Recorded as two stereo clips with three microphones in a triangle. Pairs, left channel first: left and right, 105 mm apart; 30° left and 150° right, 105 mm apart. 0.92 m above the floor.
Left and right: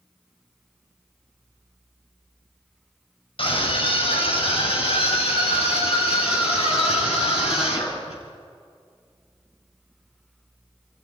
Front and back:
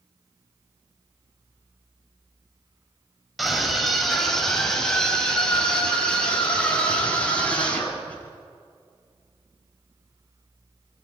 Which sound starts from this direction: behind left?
A scream, at 3.4 s.